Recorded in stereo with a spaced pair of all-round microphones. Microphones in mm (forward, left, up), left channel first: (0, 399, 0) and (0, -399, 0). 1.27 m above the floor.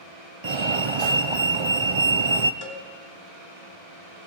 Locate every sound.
0.4 s a fire alarm: 35° right (ahead or behind), 0.9 m
2.6 s a cowbell: 30° left (ahead or behind), 3 m